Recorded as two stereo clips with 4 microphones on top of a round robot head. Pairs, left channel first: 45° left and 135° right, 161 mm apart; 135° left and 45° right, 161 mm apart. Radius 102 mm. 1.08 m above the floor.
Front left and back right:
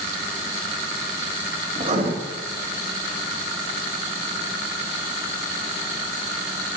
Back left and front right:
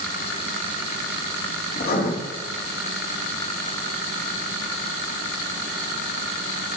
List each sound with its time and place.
1.8 s writing: 170° left, 1.9 m